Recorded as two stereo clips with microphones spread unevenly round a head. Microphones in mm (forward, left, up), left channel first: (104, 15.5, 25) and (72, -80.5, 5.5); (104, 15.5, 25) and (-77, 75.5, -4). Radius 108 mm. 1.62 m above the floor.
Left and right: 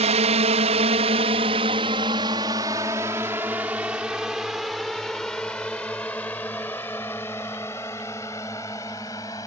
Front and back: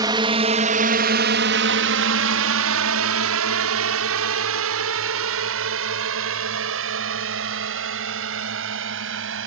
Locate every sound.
0.0 s a drone: 125° right; by 9.5 s 145° left